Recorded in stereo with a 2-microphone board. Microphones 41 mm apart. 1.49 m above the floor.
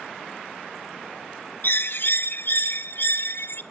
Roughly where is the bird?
Left.